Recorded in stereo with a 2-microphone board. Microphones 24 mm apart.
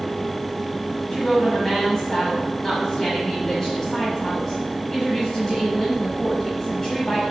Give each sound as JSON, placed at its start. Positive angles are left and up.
{"t": 1.1, "sound": "a woman speaking", "side_deg": 20, "distance_m": 1.4}